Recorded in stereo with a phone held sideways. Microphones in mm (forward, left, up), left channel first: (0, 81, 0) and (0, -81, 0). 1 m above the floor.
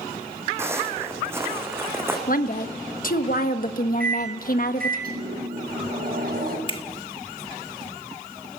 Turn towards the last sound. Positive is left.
turn(degrees=35)  # may be behind; listen again after turning